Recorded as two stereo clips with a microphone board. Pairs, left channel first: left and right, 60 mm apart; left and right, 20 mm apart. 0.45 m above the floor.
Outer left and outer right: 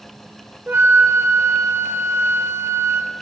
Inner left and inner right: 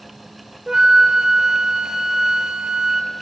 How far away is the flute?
About 0.6 m.